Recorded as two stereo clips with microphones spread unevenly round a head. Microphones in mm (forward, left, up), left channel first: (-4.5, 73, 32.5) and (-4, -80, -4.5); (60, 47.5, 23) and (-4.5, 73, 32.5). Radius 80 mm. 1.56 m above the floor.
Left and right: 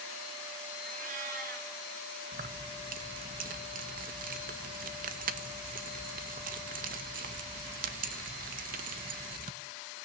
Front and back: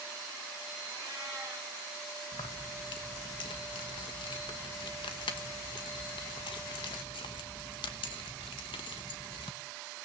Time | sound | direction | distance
0.8 | a cat meowing | 130° right | 4.5 m
2.3 | keys jangling | 50° right | 1.2 m